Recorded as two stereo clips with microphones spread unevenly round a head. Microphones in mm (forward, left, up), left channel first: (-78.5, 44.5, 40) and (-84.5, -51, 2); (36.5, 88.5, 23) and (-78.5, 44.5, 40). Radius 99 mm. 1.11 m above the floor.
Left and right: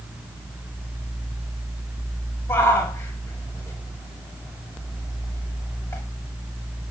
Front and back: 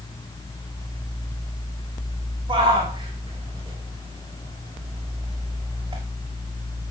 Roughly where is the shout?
Behind left.